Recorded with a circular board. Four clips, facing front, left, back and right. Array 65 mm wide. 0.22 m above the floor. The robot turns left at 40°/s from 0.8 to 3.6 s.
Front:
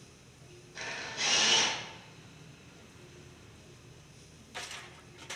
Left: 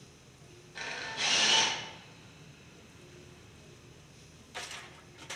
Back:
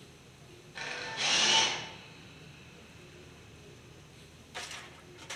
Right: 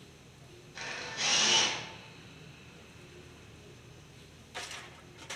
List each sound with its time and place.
0.8 s a camera shutter: 150° left, 0.8 m; by 1.7 s 110° left, 0.8 m